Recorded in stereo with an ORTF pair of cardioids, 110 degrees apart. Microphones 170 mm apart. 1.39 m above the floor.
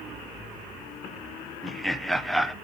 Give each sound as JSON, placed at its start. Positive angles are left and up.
{"t": 1.6, "sound": "laughter", "azimuth_deg": 0, "distance_m": 0.7}